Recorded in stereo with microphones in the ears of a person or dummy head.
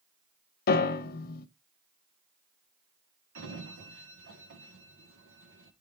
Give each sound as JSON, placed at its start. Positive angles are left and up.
{"t": 0.7, "sound": "a piano", "side_deg": 50, "distance_m": 0.8}
{"t": 3.4, "sound": "a sliding door", "side_deg": -60, "distance_m": 1.4}